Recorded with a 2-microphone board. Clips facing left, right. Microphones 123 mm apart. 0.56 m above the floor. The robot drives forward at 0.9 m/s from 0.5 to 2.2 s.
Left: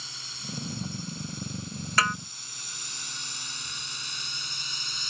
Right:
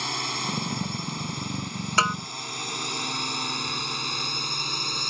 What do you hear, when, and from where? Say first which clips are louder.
0.0 s a drone: right 14 dB; 75° right (ahead or behind); by 5.1 s 60° right (ahead or behind)
2.0 s a snare drum: right 2 dB; 30° right (ahead or behind)